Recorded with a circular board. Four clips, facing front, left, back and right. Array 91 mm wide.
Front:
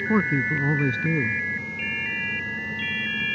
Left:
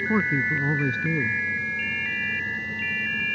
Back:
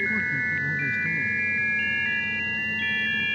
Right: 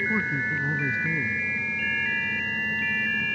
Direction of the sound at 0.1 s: 25° left.